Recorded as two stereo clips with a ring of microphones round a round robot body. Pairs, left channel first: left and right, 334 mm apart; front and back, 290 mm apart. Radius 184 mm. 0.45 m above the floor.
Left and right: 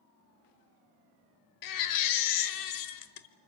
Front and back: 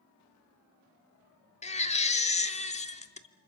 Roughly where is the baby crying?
Left.